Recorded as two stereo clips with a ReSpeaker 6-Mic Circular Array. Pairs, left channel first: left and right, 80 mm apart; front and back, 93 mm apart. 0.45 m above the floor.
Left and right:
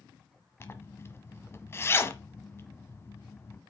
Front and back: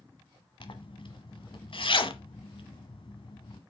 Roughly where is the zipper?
Ahead left.